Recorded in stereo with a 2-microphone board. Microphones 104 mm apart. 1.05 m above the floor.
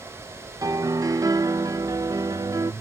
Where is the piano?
35° right (ahead or behind).